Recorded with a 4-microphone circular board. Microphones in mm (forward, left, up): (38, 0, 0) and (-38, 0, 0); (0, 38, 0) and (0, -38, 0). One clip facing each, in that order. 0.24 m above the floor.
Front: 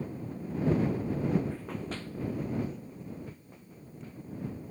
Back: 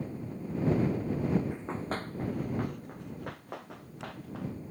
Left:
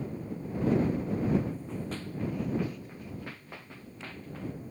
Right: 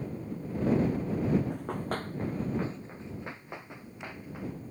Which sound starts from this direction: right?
Running footsteps, at 1.5 s.